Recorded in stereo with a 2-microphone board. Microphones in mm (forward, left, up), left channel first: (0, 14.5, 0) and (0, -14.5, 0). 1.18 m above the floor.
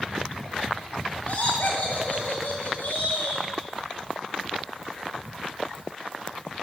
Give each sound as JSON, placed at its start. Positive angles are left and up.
{"t": 1.3, "sound": "laughter", "side_deg": 70, "distance_m": 0.6}